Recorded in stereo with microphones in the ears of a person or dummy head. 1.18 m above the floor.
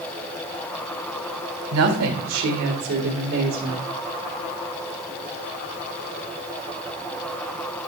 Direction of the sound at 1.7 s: 70° right (ahead or behind).